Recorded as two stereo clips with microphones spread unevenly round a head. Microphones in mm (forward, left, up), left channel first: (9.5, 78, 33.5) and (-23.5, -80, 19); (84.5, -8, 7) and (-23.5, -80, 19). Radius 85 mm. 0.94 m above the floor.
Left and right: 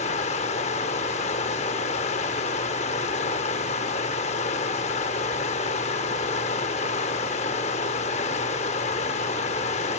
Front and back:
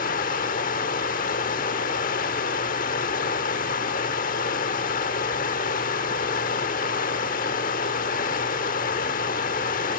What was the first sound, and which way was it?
Running water, 35° left.